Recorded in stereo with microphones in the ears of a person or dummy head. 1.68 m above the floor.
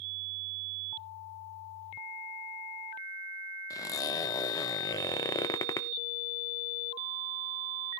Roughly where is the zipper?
Centre.